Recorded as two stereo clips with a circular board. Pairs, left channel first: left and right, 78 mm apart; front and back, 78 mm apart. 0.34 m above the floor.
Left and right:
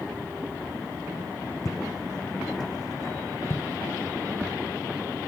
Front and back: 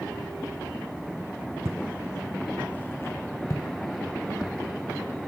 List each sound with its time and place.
1.6 s footsteps: 130° left, 0.9 m; by 4.5 s 25° left, 2 m